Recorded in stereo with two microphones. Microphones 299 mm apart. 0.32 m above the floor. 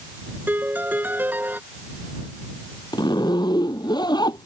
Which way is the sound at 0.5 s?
5° right (ahead or behind).